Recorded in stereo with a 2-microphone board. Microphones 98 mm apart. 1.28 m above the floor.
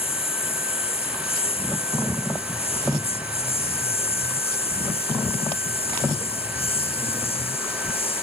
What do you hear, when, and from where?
0.0 s a lawn mower: 80° left; by 8.2 s 75° left (ahead or behind)